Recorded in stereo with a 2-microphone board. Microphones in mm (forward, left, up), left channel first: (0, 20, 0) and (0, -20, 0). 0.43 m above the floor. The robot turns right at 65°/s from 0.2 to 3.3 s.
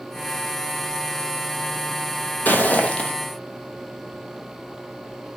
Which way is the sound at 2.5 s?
105° left.